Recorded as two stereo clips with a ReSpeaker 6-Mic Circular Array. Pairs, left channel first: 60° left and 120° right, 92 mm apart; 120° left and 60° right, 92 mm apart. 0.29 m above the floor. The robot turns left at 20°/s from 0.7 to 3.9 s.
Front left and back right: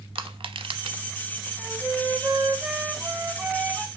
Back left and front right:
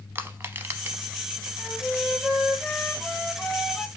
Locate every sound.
0.1 s crushing: 125° right, 0.7 m; by 1.0 s 130° right, 0.7 m
1.6 s a flute: 150° right, 0.7 m; by 3.9 s 165° left, 0.7 m